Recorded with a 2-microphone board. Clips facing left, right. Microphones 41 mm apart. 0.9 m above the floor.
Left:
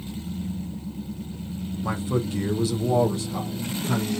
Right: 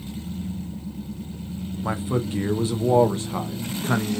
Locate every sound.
1.8 s a man speaking: 15° right (ahead or behind), 1.2 m; by 4.2 s 45° right (ahead or behind), 1.3 m